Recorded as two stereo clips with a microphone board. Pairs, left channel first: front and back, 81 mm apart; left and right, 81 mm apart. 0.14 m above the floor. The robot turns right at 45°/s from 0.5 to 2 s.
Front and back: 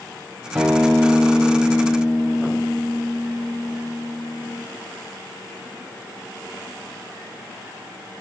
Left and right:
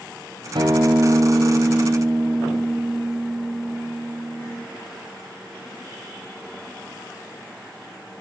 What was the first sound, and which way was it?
A guitar, 100° right.